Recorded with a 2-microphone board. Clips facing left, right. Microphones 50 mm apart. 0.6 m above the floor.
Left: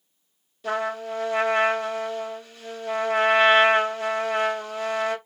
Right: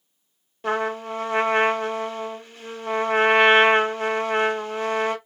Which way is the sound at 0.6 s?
45° right (ahead or behind).